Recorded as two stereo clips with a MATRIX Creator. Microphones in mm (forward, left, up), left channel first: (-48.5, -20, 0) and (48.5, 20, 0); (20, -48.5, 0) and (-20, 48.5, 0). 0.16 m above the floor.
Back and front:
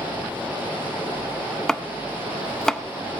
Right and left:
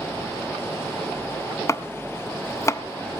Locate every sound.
1.7 s chopping: 75° right, 0.6 m